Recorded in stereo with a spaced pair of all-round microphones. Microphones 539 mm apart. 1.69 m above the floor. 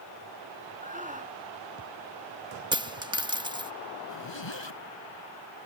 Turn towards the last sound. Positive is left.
turn(degrees=55)  # may be behind; listen again after turning